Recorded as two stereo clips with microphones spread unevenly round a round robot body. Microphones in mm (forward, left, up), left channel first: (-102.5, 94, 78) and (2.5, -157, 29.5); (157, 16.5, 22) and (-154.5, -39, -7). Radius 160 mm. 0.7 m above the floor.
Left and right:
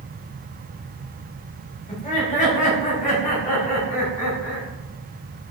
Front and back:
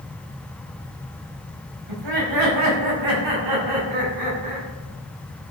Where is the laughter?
175° left, 5 m; by 4.7 s 165° left, 7 m.